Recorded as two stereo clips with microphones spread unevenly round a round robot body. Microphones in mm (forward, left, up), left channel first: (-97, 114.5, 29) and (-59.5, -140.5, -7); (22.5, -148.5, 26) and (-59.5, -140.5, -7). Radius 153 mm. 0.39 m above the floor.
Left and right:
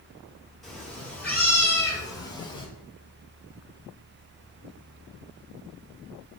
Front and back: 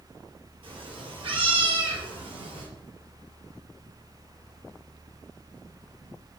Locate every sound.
0.6 s a cat meowing: 175° right, 4 m; by 2.7 s 170° left, 3.5 m